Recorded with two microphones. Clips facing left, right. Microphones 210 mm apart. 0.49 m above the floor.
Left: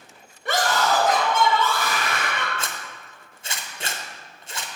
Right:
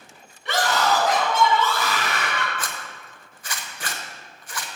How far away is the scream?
About 2 m.